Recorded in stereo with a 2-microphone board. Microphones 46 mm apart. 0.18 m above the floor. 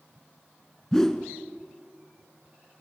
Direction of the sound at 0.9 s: 10° left (ahead or behind).